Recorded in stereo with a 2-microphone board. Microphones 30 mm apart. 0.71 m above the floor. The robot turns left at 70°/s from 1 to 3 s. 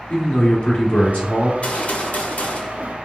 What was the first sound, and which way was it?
A man speaking, 90° left.